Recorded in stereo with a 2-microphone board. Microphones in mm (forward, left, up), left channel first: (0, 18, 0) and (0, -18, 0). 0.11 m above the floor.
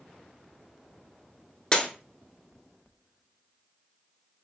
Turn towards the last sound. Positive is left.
turn(degrees=20)  # may be behind; listen again after turning